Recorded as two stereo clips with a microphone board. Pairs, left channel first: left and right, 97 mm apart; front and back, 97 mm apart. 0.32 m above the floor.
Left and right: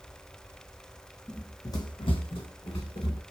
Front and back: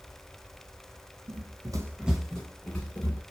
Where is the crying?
I don't hear crying.